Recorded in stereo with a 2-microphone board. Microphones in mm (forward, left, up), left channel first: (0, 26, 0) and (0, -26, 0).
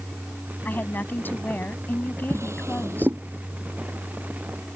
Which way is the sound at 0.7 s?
40° left (ahead or behind).